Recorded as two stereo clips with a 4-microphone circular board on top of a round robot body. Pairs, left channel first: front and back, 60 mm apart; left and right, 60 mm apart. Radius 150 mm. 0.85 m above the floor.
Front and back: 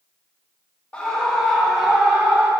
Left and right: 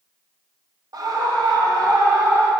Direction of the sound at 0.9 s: 75° right.